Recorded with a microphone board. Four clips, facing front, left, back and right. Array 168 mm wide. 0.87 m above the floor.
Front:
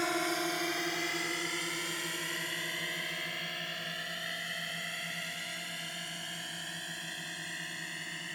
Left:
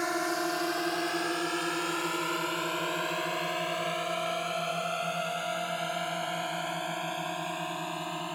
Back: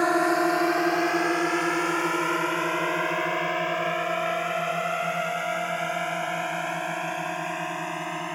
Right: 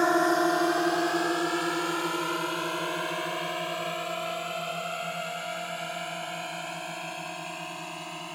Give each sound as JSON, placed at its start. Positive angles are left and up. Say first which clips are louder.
{"t": 0.0, "sound": "a drone", "louder": "right 8 dB, back 11 dB", "azimuth_deg": -140}